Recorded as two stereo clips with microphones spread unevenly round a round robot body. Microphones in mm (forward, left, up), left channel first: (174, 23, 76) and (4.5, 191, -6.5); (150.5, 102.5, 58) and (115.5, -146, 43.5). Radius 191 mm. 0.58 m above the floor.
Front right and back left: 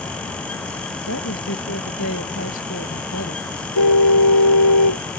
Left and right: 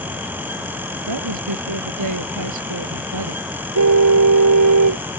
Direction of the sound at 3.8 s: 85° right.